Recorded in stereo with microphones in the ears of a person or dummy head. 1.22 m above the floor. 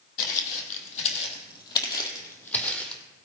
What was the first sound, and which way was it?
Footsteps, 50° left (ahead or behind).